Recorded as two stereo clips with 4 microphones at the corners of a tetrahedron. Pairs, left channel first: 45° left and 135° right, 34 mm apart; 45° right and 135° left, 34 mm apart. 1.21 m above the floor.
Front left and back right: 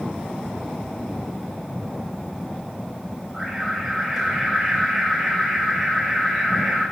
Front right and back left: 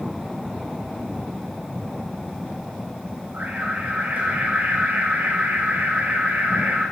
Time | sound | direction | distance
3.3 | an alarm | 145° left | 8.5 m